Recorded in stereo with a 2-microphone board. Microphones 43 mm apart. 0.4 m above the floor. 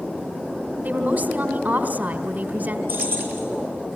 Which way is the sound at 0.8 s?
40° right (ahead or behind).